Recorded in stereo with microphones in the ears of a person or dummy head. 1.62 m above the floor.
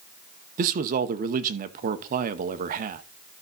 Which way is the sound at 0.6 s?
45° right (ahead or behind).